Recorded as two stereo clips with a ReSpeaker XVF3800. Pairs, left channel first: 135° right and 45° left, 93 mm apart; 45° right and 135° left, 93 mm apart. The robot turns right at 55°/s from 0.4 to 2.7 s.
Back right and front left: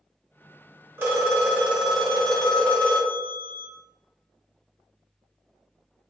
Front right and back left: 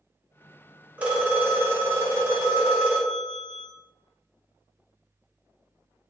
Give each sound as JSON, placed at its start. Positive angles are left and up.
{"t": 1.0, "sound": "a phone ringing", "azimuth_deg": 75, "distance_m": 1.0}